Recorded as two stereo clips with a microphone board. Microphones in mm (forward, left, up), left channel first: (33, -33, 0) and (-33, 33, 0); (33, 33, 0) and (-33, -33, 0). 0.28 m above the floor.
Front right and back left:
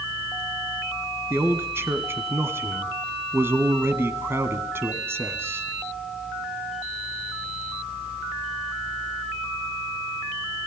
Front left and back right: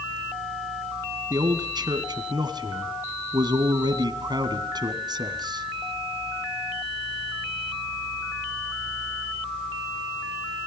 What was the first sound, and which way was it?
A man speaking, 165° right.